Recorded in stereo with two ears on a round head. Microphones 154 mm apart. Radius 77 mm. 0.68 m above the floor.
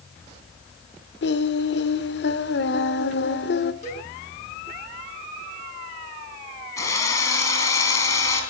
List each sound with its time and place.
1.2 s singing: 65° left (ahead or behind), 1.1 m
3.8 s a cowbell: 40° left (ahead or behind), 6.5 m
6.8 s a drill: 20° left (ahead or behind), 5.5 m